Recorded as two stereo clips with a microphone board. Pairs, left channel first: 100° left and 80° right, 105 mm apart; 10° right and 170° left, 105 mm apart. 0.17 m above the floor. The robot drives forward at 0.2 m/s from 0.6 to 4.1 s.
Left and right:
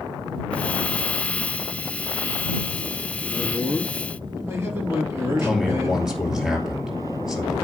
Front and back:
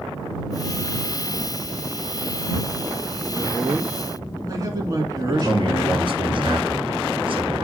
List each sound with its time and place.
3.3 s a man speaking: 135° right, 2.0 m
5.4 s a man speaking: 165° right, 2.5 m